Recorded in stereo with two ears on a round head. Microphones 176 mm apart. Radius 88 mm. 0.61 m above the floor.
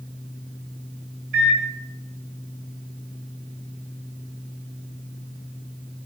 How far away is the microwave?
About 2.5 m.